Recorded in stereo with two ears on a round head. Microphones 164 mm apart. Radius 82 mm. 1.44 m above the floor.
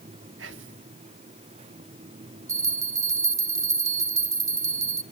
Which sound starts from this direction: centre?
A bell, at 2.5 s.